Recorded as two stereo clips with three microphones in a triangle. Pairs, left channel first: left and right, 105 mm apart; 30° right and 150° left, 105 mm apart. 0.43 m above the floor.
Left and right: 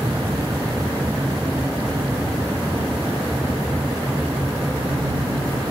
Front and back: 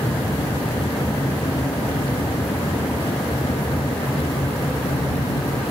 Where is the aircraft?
25° right; by 5.7 s 20° right.